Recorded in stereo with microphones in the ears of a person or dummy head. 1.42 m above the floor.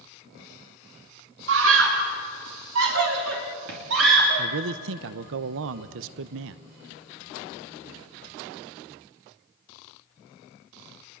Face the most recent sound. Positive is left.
turn(degrees=-65)  # may be behind; listen again after turning